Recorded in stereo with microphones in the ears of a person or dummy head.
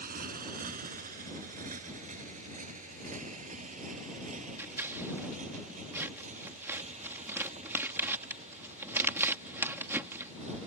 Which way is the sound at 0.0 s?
50° right (ahead or behind).